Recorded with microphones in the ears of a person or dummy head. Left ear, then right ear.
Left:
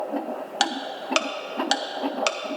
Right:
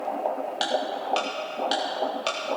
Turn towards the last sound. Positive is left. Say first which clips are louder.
# left 1 dB
turn(degrees=55)  # may be behind; listen again after turning